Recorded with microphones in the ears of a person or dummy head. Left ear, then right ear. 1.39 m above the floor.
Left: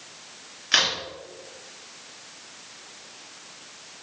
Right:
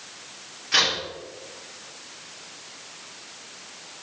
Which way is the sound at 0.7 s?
45° left (ahead or behind).